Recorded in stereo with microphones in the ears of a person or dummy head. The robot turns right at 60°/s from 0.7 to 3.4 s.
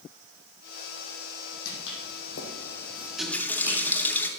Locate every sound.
1.6 s footsteps: 50° left (ahead or behind), 3.5 m; by 4.0 s 15° right (ahead or behind), 2.5 m
3.2 s a running tap: centre (ahead or behind), 1.7 m; by 4.3 s 10° left (ahead or behind), 1.7 m